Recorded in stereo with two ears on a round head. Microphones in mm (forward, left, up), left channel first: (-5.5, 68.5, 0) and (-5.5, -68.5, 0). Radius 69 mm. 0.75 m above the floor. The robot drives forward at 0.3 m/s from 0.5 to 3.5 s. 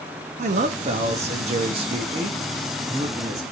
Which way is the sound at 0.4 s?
50° right (ahead or behind).